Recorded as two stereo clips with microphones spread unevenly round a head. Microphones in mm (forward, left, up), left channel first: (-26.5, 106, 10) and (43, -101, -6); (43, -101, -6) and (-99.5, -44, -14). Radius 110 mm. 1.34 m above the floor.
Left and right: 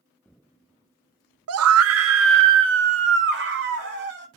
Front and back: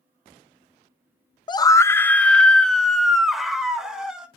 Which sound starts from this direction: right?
A scream, at 1.5 s.